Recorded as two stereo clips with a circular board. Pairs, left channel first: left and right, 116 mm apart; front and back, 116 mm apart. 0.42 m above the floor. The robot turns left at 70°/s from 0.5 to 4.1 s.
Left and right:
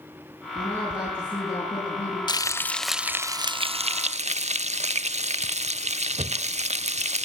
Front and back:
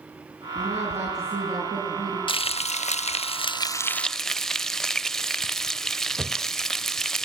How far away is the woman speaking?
About 8.5 m.